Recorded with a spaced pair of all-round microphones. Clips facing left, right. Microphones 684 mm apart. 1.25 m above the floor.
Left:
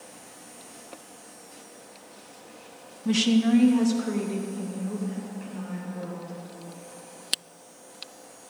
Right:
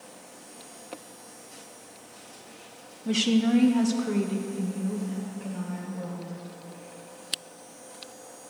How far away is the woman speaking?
About 0.6 m.